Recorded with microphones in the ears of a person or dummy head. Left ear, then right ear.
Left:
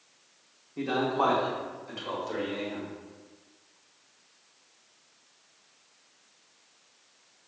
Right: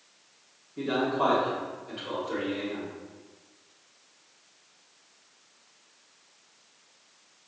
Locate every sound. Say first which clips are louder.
0.8 s a man speaking: even; 35° left (ahead or behind), 1.0 m; by 2.9 s 45° left (ahead or behind), 2.5 m